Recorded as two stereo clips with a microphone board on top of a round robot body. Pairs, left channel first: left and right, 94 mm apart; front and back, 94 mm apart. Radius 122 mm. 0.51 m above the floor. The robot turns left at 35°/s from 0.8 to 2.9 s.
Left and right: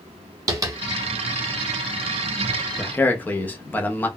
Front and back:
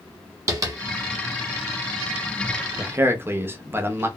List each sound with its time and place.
0.5 s tapping: 130° right, 0.9 m
2.8 s a man speaking: 145° left, 0.7 m; by 4.1 s 140° left, 0.7 m